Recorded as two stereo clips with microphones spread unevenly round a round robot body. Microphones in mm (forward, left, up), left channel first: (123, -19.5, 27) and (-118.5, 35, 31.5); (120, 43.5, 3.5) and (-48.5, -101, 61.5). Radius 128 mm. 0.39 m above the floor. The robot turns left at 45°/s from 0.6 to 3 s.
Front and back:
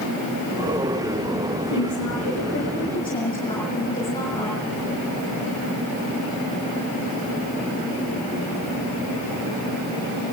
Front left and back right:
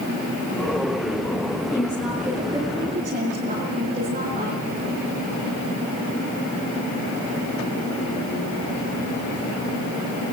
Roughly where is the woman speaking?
Ahead right.